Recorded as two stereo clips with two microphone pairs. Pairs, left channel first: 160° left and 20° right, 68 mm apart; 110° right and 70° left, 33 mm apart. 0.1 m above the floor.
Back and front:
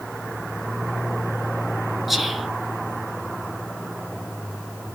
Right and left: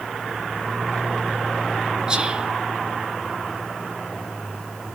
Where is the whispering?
65° left, 1.2 m.